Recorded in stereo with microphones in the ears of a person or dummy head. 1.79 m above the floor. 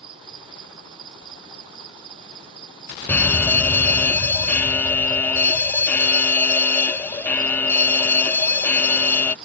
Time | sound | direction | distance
0.0 | an insect | 30° right (ahead or behind) | ?
3.1 | a fire alarm | 10° left (ahead or behind) | ?